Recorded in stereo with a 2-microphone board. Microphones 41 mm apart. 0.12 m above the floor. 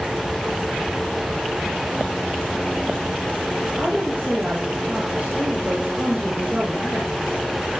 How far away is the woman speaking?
About 5 m.